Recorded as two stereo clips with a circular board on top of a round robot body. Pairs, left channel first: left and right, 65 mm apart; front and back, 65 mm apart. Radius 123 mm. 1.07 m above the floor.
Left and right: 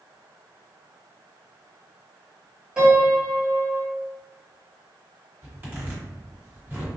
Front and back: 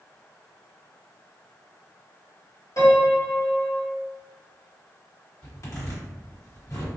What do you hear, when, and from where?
2.8 s a piano: 15° right, 1.4 m
5.4 s a zipper: 35° right, 1.5 m